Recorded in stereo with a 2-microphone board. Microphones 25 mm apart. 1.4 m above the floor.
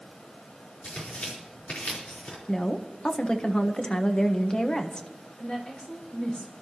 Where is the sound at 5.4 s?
50° left (ahead or behind), 4.5 m.